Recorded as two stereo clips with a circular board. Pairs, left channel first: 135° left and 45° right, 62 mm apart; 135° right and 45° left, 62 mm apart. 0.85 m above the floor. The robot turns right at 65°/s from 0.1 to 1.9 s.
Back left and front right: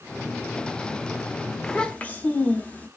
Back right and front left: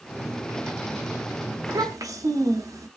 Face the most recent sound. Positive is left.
turn(degrees=70)